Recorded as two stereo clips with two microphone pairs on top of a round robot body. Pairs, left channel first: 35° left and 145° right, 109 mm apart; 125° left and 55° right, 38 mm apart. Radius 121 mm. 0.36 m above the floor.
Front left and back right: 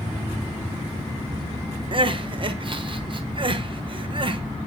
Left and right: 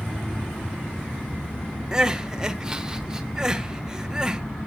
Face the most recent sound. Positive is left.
turn(degrees=-125)